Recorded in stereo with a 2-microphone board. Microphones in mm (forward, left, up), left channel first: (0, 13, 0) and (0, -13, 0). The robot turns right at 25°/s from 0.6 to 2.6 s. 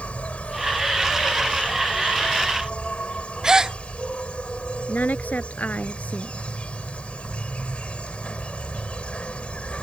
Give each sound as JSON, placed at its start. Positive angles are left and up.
{"t": 0.0, "sound": "an insect", "azimuth_deg": 70}
{"t": 3.4, "sound": "a gasp", "side_deg": -25}
{"t": 4.9, "sound": "a woman speaking", "side_deg": 90}